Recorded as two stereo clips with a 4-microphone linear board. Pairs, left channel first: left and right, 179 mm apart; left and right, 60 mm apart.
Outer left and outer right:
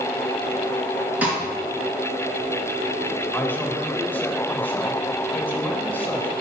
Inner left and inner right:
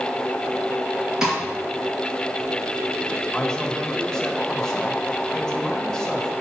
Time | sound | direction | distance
1.2 | a snare drum | 10° right (ahead or behind) | 3 m
3.3 | a man speaking | 10° left (ahead or behind) | 1.8 m